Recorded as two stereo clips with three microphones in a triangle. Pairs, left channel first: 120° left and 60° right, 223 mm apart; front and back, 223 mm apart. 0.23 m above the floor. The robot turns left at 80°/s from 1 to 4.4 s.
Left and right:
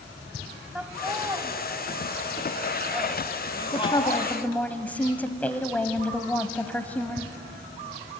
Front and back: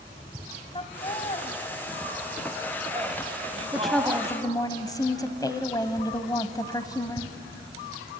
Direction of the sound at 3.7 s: 100° left.